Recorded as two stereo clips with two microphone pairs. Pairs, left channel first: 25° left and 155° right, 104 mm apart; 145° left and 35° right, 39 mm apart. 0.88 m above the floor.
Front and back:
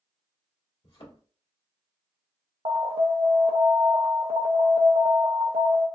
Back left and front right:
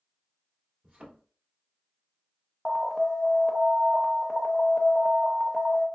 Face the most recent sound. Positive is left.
turn(degrees=-125)